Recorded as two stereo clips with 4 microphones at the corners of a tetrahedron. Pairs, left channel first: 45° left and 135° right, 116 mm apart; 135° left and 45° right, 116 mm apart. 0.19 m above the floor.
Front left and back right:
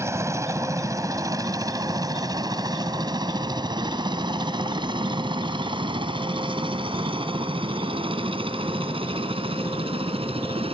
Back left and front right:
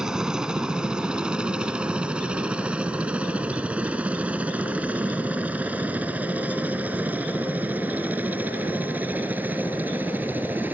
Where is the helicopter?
120° right; by 10.7 s 115° right.